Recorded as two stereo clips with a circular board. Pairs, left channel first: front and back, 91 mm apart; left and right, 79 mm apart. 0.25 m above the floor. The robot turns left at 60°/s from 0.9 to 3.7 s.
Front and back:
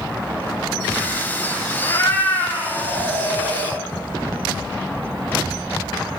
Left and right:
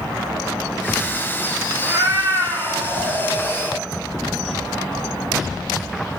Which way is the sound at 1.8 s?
50° right.